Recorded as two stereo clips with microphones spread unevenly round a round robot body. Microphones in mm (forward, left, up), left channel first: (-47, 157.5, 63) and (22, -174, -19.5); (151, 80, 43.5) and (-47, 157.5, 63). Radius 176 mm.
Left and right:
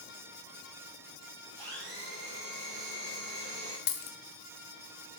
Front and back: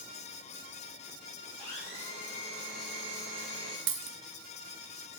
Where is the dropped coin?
155° left, 0.8 m.